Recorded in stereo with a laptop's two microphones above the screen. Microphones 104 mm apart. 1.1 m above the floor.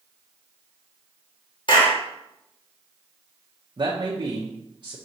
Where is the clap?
50° left (ahead or behind), 2 m.